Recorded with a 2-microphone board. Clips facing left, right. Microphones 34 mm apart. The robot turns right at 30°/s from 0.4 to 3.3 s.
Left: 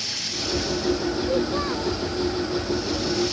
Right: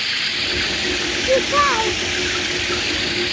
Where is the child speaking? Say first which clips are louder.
Right 11 dB; 40° right (ahead or behind); by 2.0 s 60° right (ahead or behind).